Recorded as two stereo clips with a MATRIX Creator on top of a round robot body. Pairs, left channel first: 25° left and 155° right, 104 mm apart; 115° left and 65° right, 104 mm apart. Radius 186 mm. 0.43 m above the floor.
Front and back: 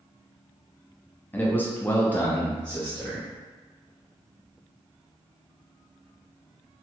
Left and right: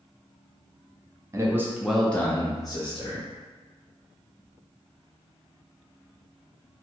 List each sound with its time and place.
1.3 s a man speaking: 40° right, 1.0 m; by 3.3 s 105° left, 1.3 m